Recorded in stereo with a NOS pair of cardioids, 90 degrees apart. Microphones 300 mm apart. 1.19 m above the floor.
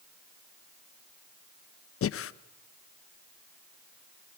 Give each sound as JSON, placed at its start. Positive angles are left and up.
{"t": 2.0, "sound": "breathing", "azimuth_deg": 50, "distance_m": 0.8}